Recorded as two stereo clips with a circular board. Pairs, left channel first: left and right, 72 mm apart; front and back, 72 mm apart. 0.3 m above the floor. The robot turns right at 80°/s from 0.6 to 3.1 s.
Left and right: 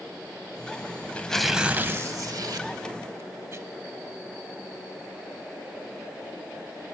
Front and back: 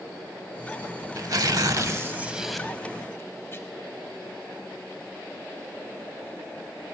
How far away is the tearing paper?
About 0.7 m.